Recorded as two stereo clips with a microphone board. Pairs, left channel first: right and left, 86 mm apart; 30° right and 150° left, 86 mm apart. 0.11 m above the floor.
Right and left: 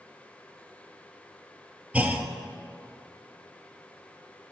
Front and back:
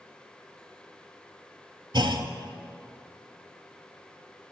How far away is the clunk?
About 0.6 m.